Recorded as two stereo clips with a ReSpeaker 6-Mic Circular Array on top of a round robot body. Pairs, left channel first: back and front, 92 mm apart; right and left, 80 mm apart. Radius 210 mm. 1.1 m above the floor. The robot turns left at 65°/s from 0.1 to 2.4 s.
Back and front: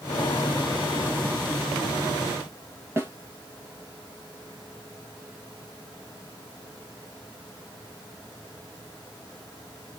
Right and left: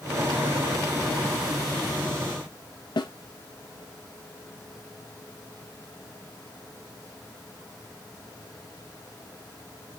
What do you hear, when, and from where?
3.0 s a snare drum: 65° right, 1.0 m